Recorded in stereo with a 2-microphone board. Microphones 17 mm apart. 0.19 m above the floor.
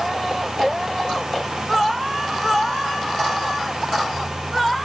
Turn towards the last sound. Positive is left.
No sound to turn to.